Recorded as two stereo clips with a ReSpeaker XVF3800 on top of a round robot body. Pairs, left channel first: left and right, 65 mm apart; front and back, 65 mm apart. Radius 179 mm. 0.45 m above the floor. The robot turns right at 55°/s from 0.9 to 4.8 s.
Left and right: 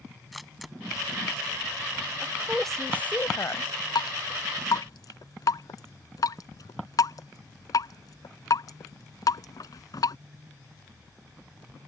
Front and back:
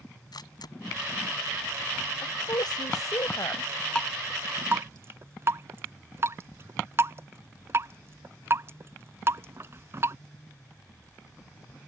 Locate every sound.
0.3 s a camera shutter: straight ahead
2.2 s a woman speaking: 20° right; by 3.7 s 60° left
4.0 s dripping: 80° left; by 10.2 s 125° left